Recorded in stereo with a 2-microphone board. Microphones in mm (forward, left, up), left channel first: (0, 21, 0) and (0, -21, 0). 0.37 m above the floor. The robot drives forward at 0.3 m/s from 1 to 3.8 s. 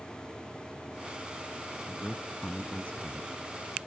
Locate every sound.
1.9 s a man speaking: 35° left (ahead or behind)